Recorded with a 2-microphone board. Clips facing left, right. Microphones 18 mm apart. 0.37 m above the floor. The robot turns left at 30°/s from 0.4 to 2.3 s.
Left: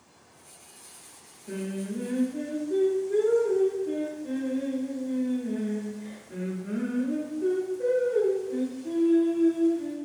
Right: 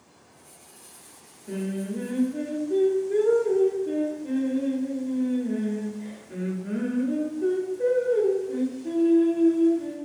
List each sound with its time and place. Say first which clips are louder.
1.5 s singing: right 3 dB; centre (ahead or behind), 0.9 m; by 9.9 s 15° right (ahead or behind), 0.9 m